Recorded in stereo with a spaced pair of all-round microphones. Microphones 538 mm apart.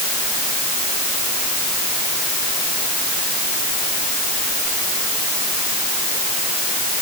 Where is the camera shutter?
No camera shutter in this recording.